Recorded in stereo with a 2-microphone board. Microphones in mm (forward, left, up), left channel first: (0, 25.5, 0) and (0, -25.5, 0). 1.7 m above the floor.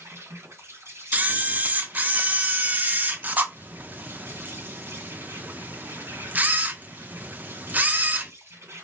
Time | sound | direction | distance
0.0 | an insect | 65° right (ahead or behind) | 3.5 m
1.1 | a camera shutter | 30° right (ahead or behind) | 0.6 m